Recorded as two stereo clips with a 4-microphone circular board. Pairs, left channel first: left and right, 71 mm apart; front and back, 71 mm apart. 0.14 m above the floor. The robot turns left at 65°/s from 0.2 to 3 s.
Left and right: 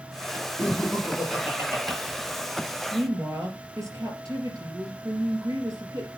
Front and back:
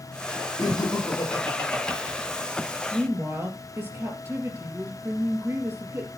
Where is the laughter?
25° left, 3 m; by 2.0 s 65° right, 3 m.